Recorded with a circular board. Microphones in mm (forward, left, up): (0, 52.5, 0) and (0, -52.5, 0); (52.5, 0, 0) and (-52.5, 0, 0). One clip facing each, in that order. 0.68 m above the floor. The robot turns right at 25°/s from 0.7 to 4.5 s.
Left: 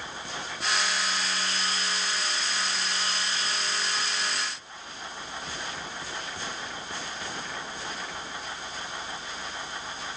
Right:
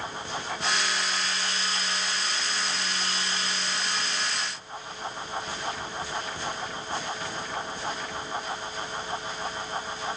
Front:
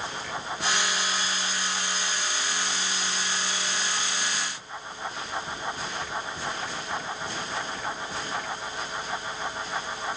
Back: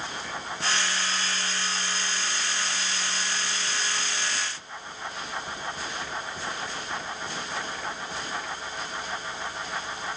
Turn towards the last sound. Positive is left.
No sound to turn to.